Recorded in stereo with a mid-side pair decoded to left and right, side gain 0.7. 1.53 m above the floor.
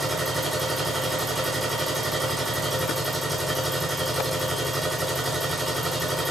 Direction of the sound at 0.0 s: 5° right.